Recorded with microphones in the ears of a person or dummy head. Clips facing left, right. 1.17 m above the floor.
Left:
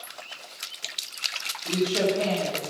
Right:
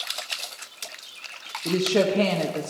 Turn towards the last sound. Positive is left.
turn(degrees=-65)  # may be behind; listen again after turning